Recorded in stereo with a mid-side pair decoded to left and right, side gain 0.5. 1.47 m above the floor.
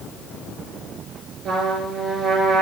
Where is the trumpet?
55° right, 2 m.